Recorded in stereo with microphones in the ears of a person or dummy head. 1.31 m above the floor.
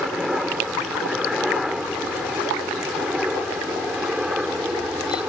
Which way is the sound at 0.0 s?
Centre (ahead or behind).